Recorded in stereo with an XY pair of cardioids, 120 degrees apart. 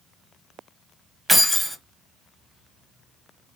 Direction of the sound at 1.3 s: 10° right.